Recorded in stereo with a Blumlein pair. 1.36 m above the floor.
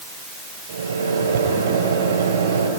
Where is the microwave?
65° right, 5.5 m.